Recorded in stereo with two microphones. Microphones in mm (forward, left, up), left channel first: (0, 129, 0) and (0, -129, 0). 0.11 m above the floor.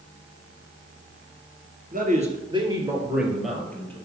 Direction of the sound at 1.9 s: 35° right (ahead or behind).